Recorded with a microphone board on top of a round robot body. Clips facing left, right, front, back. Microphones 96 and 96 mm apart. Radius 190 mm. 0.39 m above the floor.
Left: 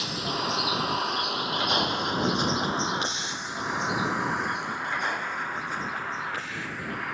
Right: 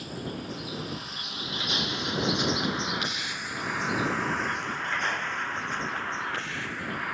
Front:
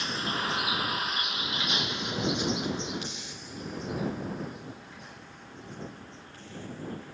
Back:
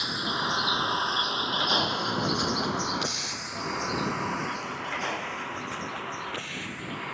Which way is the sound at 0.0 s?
100° left.